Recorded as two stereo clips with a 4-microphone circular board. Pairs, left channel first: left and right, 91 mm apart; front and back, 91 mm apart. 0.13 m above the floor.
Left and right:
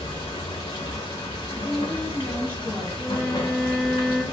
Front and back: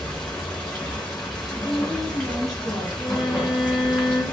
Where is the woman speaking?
70° left, 1.3 m.